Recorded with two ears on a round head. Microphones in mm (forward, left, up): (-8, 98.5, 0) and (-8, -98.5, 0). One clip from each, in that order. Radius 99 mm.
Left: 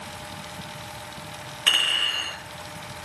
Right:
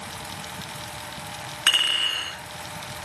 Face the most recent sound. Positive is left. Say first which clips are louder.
# even
turn(degrees=-30)  # may be behind; listen again after turning